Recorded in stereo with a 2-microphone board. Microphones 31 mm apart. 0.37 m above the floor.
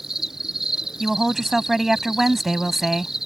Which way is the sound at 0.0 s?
10° right (ahead or behind).